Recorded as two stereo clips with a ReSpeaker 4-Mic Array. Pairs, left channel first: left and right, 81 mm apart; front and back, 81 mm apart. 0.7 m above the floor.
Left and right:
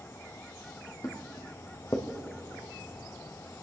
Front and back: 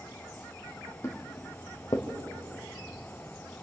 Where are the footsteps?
50° left, 2.0 m; by 2.1 s 35° left, 2.5 m.